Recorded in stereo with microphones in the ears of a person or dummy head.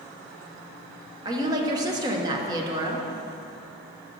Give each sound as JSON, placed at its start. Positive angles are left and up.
{"t": 1.2, "sound": "a woman speaking", "side_deg": -20, "distance_m": 1.0}